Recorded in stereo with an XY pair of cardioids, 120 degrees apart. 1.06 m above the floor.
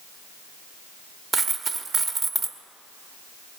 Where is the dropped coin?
45° right, 1.0 m.